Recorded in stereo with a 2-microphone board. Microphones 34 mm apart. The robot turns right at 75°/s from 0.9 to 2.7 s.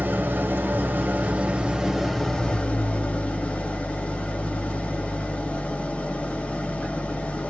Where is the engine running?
85° right, 1.0 m; by 7.5 s 50° left, 1.0 m.